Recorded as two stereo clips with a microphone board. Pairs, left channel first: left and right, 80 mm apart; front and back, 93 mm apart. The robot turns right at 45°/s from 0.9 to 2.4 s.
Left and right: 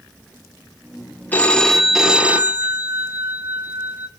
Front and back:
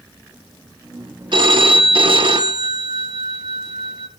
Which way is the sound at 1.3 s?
155° left.